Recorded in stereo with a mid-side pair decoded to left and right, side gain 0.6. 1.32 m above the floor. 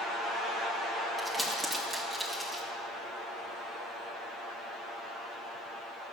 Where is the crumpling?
15° right, 2.5 m.